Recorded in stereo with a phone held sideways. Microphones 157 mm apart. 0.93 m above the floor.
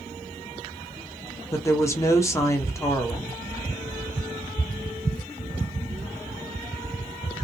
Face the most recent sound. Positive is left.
turn(degrees=20)  # may be behind; listen again after turning